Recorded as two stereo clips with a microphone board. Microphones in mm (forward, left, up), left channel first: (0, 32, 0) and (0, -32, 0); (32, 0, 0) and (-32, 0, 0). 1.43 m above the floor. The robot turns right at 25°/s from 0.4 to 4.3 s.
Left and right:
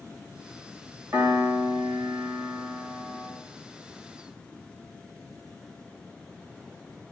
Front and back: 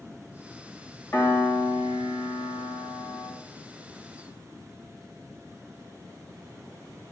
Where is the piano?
40° right, 1.9 m; by 3.3 s 15° left, 1.9 m.